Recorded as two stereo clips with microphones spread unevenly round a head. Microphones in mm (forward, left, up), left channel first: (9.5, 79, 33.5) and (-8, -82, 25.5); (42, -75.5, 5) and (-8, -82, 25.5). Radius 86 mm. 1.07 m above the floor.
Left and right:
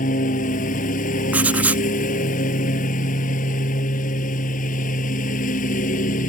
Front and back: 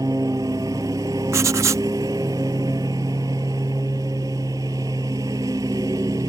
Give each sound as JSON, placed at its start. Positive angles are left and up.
{"t": 0.0, "sound": "a lawn mower", "azimuth_deg": 130}
{"t": 1.3, "sound": "writing", "azimuth_deg": 180}